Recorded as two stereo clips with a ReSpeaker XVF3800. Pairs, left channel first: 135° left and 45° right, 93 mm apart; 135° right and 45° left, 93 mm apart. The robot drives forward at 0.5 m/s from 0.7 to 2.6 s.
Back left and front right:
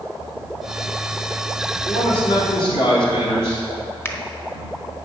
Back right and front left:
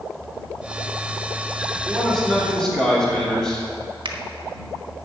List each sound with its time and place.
1.9 s a man speaking: 135° left, 3 m; by 3.7 s 140° left, 3 m
4.0 s a finger snap: 75° left, 1.3 m